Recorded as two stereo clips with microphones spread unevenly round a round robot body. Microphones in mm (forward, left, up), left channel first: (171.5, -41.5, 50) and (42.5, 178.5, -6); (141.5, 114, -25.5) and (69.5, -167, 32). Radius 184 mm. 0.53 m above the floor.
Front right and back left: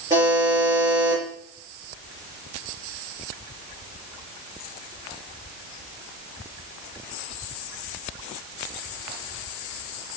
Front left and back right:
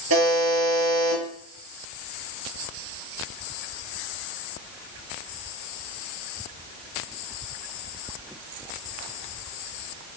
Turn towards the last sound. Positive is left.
turn(degrees=-160)